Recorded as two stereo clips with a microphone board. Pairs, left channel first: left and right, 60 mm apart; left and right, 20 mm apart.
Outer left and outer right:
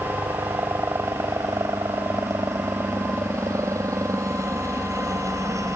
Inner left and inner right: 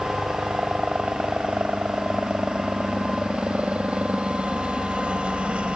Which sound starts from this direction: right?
A helicopter, at 0.0 s.